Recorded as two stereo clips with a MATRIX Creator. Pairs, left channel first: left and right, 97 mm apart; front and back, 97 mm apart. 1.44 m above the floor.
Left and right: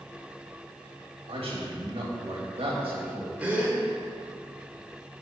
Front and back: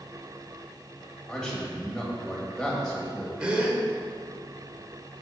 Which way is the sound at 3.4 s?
130° right.